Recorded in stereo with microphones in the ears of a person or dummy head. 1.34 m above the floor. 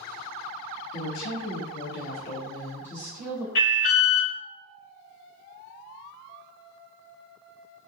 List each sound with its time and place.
0.9 s a woman speaking: 85° left, 1.0 m; by 3.5 s 5° right (ahead or behind), 1.0 m
3.5 s an alarm: 50° left (ahead or behind), 1.6 m